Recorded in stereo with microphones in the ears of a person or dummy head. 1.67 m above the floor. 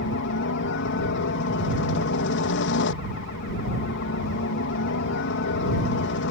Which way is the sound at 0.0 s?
65° left (ahead or behind).